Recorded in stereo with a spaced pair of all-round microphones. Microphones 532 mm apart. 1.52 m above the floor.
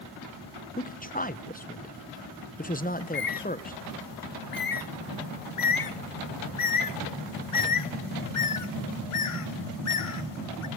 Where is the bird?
75° left (ahead or behind), 0.7 m.